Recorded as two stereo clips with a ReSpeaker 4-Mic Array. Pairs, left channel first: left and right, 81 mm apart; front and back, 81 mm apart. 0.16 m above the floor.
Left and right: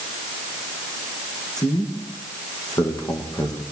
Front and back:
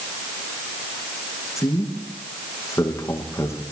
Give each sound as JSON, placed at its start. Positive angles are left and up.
{"t": 1.6, "sound": "a man speaking", "azimuth_deg": 50, "distance_m": 9.5}